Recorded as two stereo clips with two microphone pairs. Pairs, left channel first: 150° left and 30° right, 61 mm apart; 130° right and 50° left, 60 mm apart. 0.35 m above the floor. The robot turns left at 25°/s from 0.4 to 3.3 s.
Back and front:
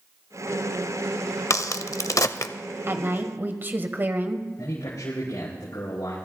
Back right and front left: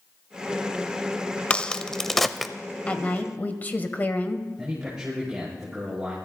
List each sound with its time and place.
1.5 s a crack: 165° left, 0.6 m; by 2.5 s 140° left, 0.6 m
2.9 s a woman speaking: 65° right, 1.2 m; by 4.5 s 75° right, 1.2 m
4.6 s a man speaking: 135° left, 5.5 m